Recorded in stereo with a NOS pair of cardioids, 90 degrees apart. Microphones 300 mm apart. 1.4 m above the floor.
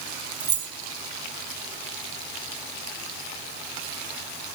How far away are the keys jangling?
About 2 m.